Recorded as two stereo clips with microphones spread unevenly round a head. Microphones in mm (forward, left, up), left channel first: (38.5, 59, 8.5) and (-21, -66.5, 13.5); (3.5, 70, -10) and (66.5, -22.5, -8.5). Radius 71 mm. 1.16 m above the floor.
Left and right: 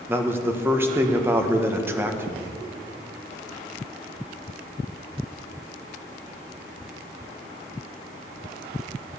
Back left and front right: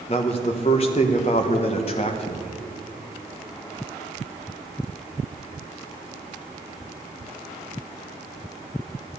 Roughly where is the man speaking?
Behind.